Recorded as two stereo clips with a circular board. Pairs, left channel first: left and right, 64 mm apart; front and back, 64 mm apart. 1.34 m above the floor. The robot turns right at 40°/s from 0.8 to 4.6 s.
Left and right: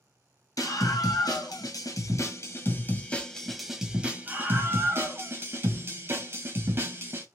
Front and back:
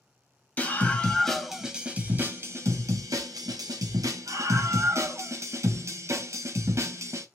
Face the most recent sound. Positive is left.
turn(degrees=-140)